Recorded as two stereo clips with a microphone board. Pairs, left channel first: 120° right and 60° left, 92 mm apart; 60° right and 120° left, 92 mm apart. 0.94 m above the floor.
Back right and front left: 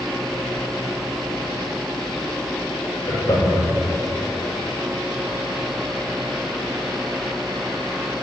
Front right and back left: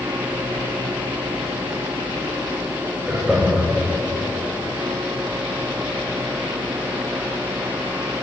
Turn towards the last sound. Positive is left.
turn(degrees=-155)